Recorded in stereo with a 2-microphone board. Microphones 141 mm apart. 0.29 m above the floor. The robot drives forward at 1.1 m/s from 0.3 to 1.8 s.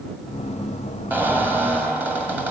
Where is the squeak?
15° right (ahead or behind), 3.5 m; by 2.5 s 10° right (ahead or behind), 4 m.